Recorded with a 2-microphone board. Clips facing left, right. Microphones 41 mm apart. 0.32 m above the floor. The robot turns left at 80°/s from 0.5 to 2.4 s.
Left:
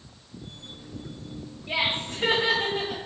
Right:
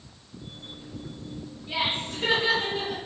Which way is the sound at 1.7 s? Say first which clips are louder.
Left 2 dB; 90° left.